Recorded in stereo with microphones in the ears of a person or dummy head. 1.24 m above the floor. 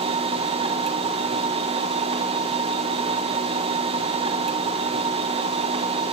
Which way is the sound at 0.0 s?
30° right (ahead or behind).